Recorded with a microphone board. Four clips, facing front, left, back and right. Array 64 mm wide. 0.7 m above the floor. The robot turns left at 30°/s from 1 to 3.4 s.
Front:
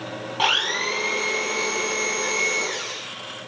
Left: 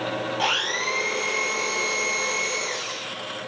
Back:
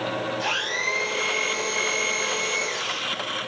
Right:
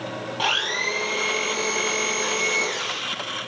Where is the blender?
5° right, 8.5 m; by 3.1 s 70° right, 8.5 m.